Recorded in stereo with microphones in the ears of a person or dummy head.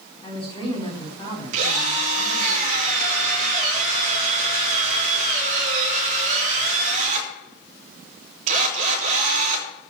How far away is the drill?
About 3.5 m.